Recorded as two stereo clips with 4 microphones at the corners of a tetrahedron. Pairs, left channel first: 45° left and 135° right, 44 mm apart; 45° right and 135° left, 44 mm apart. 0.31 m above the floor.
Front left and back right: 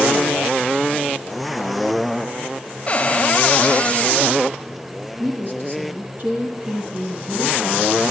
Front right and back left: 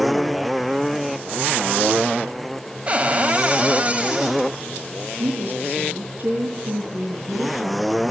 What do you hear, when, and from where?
2.9 s a cupboard door: 90° left, 1.1 m
5.2 s a woman speaking: 175° right, 3.5 m